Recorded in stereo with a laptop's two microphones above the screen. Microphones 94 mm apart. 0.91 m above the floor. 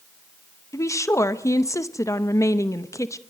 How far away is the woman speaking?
About 0.7 m.